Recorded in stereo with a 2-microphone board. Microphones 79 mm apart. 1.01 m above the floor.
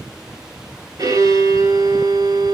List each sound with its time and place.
1.0 s a violin: 50° right (ahead or behind), 4.5 m